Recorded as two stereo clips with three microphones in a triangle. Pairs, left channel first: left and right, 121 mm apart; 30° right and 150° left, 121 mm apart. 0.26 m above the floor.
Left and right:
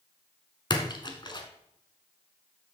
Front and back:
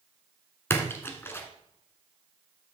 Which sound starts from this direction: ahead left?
A splash, at 0.7 s.